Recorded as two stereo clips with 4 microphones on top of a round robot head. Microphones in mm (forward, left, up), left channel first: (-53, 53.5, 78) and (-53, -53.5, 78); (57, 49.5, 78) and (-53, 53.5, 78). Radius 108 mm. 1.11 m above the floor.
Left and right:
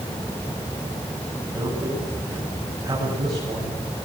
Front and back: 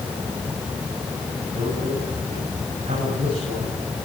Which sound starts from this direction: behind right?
A man speaking, at 1.5 s.